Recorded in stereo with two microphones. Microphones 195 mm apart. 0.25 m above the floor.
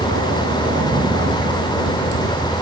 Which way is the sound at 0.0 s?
90° right.